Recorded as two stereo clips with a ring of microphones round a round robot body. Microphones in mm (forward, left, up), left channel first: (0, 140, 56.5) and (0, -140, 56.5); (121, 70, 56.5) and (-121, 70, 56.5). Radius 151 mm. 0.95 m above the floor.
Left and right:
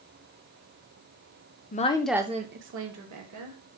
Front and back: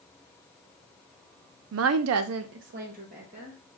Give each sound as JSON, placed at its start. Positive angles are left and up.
{"t": 1.7, "sound": "a woman speaking", "azimuth_deg": 150, "distance_m": 0.6}